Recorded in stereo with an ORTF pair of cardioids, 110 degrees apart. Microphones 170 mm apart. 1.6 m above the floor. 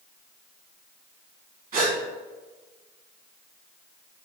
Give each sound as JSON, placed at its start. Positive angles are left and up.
{"t": 1.7, "sound": "a gasp", "azimuth_deg": -55, "distance_m": 1.4}